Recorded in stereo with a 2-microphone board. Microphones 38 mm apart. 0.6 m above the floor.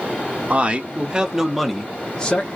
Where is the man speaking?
35° right (ahead or behind), 0.9 m; by 2.5 s 30° left (ahead or behind), 0.7 m.